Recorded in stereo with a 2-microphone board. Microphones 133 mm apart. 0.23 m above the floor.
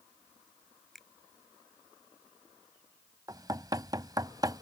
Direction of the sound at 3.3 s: 30° right (ahead or behind).